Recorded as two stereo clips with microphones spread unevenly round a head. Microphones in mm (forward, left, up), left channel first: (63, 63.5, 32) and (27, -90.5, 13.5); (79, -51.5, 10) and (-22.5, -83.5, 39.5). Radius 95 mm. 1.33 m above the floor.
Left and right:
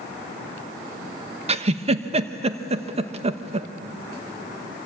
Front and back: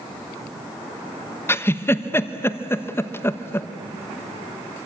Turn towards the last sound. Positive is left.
turn(degrees=-55)